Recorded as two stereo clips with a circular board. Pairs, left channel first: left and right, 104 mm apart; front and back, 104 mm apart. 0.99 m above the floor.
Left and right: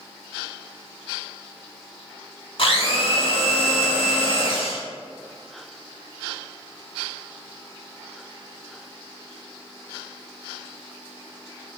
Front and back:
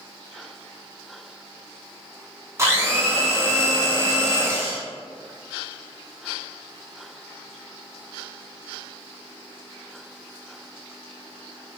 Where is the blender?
120° left, 0.9 m.